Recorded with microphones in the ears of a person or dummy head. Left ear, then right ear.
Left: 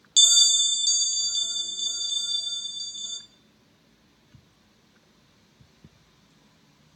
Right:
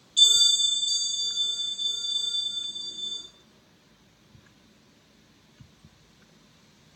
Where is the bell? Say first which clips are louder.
Left 1 dB; 85° left, 0.5 m.